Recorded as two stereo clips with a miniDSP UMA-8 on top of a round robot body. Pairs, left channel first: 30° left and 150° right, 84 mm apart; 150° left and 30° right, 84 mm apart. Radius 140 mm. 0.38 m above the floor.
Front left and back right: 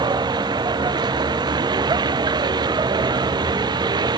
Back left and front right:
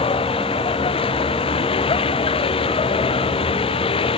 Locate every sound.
0.0 s a vehicle: 170° left